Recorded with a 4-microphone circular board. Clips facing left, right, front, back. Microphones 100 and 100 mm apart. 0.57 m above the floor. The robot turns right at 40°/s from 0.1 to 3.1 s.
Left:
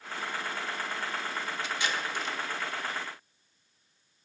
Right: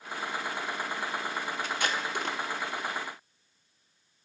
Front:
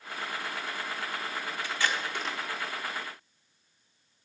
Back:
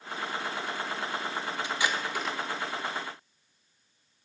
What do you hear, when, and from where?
1.6 s tape being pulled: 115° right, 0.8 m; by 2.4 s 85° right, 0.8 m